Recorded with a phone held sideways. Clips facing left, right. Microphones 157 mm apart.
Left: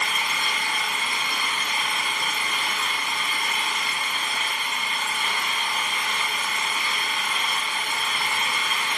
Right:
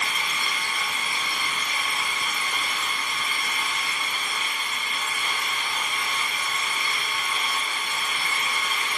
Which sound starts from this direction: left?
An engine running, at 0.0 s.